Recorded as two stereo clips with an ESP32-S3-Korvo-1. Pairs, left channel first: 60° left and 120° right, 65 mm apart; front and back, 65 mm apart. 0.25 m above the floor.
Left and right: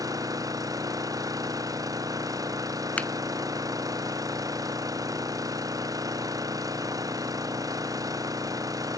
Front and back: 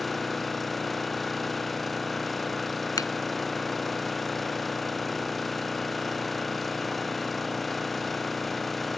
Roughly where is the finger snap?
Ahead.